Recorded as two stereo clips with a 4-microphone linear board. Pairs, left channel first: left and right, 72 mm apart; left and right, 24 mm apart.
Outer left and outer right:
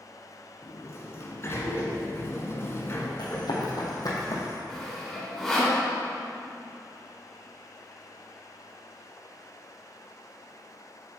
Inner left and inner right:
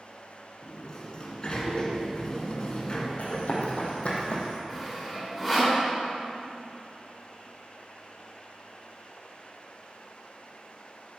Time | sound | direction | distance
0.6 | a sliding door | 40° left (ahead or behind) | 1.6 m
3.2 | running footsteps | 75° left (ahead or behind) | 2.5 m
4.7 | sawing | 5° left (ahead or behind) | 3.5 m